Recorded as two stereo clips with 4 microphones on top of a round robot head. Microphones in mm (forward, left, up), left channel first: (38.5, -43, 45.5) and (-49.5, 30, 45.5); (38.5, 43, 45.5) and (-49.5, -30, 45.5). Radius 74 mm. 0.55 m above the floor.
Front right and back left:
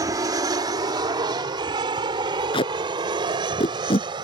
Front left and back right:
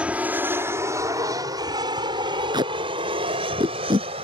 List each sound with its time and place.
0.0 s an aircraft: 150° left; by 4.2 s 170° right
2.5 s tape being pulled: 85° right